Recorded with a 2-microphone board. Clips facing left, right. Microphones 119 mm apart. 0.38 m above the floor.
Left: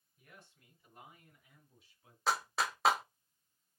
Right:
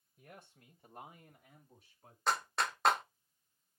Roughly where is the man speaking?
Right.